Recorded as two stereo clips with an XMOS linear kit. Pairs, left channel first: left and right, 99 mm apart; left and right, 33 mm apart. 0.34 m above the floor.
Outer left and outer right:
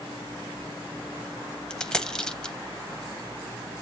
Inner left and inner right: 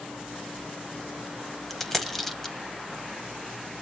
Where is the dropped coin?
5° left (ahead or behind), 0.8 m.